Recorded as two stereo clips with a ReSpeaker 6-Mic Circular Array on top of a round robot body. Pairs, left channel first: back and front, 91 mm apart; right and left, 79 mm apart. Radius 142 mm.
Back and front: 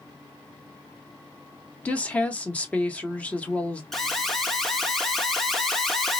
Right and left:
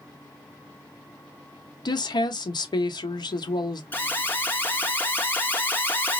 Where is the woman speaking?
105° right, 0.9 m.